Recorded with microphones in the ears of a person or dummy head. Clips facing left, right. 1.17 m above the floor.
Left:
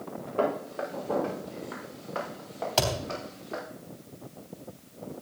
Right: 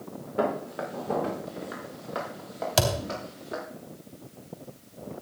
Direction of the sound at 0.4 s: 25° right (ahead or behind).